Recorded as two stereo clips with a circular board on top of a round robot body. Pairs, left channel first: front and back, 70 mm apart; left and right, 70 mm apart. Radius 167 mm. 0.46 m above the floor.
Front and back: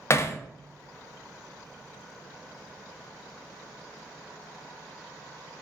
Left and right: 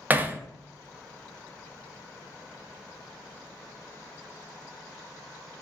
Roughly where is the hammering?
Ahead right.